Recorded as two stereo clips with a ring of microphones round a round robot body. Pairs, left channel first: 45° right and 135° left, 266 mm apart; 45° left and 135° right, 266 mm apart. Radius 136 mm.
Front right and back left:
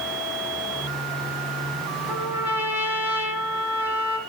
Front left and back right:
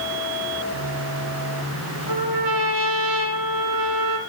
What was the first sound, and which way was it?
A trumpet, 140° right.